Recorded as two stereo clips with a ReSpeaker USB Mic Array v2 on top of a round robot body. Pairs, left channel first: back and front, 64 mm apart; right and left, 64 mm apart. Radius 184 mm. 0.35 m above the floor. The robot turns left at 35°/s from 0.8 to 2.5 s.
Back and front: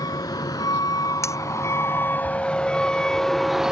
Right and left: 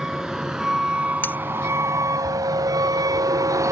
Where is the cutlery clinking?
145° right; by 1.4 s 150° right.